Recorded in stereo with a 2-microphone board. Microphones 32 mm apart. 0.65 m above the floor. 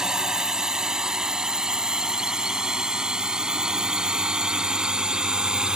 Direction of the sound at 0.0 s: 25° right (ahead or behind).